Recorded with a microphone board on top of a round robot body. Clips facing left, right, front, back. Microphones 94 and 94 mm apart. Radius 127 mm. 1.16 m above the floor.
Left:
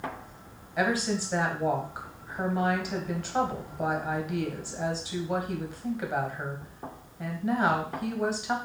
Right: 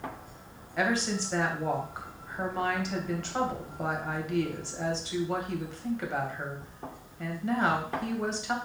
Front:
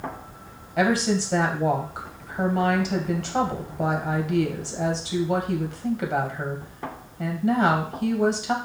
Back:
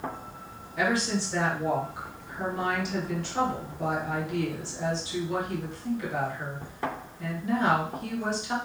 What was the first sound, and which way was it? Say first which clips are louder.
A woman speaking: left 1 dB, front 5 dB; 10° left.